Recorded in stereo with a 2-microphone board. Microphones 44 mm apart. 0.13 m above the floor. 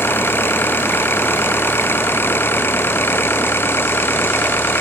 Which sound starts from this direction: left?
An engine running, at 0.0 s.